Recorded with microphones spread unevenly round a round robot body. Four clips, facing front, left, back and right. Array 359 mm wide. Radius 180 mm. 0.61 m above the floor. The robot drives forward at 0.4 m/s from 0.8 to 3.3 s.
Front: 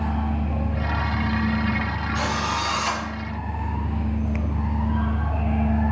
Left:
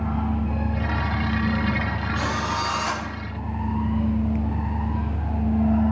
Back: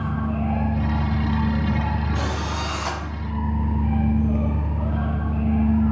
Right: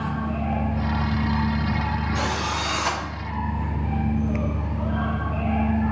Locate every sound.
2.1 s a drill: 125° right, 5.5 m; by 3.0 s 130° right, 5.5 m